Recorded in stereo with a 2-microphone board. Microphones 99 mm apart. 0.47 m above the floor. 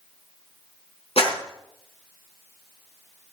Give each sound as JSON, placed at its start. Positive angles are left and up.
{"t": 1.2, "sound": "a clap", "side_deg": 65, "distance_m": 4.0}